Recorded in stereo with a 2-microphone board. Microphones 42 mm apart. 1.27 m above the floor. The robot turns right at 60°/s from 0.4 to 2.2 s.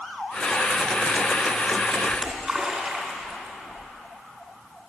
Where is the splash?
10° right (ahead or behind), 1.9 m; by 3.9 s 15° right (ahead or behind), 1.9 m.